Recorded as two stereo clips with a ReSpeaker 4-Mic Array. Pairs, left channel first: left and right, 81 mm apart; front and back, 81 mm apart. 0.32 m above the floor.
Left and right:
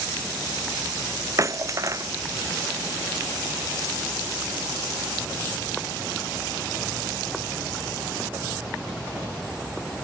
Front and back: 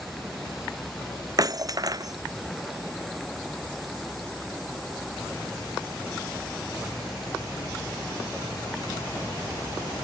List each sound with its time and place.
1.4 s breaking glass: 140° right